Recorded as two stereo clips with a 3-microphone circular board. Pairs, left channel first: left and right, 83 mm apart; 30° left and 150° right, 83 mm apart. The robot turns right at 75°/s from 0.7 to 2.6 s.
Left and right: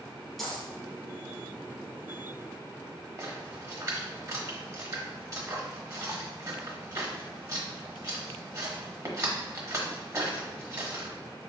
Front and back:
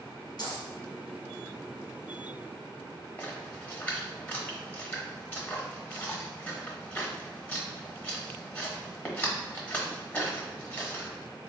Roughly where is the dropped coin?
Ahead.